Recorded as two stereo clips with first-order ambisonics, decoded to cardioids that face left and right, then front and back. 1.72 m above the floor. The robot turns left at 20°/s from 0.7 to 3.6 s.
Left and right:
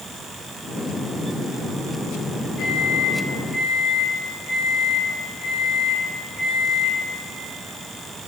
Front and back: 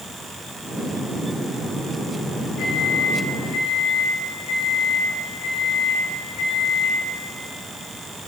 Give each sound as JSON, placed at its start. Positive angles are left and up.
{"t": 2.6, "sound": "a microwave", "azimuth_deg": 35, "distance_m": 5.0}